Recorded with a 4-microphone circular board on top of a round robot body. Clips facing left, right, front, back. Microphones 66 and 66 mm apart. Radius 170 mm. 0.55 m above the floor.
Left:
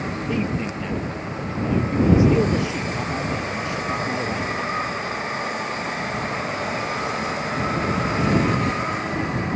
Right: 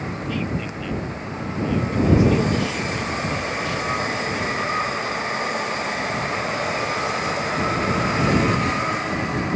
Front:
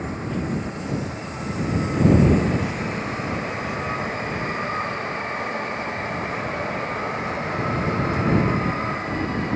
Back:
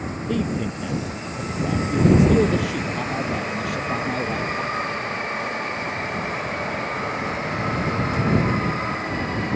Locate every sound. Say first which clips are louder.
0.3 s a man speaking: left 3 dB, back 4 dB; 160° left